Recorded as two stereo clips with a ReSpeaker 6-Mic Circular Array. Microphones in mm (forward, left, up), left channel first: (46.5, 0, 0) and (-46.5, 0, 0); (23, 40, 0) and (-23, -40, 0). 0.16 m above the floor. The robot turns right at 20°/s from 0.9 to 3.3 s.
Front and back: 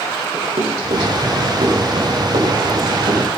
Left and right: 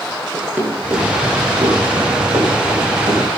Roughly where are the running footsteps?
Behind.